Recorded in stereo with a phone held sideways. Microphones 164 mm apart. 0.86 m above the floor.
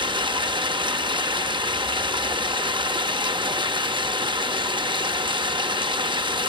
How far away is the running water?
About 0.8 m.